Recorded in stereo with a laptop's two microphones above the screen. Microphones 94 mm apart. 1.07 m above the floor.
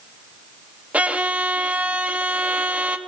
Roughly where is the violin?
Centre.